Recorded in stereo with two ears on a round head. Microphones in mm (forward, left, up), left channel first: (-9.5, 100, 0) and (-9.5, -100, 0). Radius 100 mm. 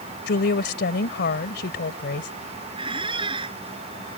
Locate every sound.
0.3 s a woman speaking: 50° left (ahead or behind)
2.8 s a squeak: 25° right (ahead or behind)